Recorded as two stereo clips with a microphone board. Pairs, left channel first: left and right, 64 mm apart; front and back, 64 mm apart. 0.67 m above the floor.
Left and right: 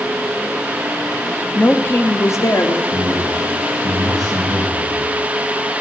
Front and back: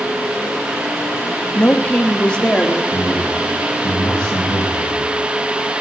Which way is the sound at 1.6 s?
45° left.